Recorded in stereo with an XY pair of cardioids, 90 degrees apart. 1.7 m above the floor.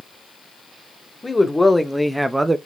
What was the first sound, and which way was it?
A man speaking, 15° left.